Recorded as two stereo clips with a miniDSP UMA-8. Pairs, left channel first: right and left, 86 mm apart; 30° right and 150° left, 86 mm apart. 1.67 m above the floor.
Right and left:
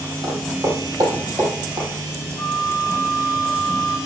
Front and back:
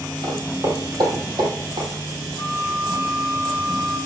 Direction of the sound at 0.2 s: 120° left.